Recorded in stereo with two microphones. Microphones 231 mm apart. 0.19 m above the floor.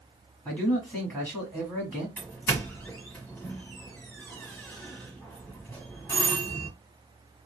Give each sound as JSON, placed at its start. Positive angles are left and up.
{"t": 0.5, "sound": "a man speaking", "side_deg": 5, "distance_m": 1.6}
{"t": 2.2, "sound": "a doorbell", "side_deg": 5, "distance_m": 1.4}